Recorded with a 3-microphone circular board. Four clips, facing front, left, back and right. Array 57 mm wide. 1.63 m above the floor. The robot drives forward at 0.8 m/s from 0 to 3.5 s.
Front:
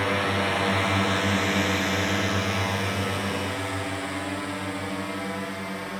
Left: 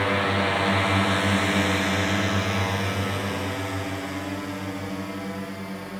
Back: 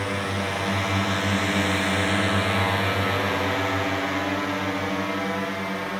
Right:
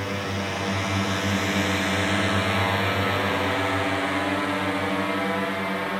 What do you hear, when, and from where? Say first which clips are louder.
0.0 s a drone: left 6 dB, front 2 dB; 70° left; by 6.0 s 105° right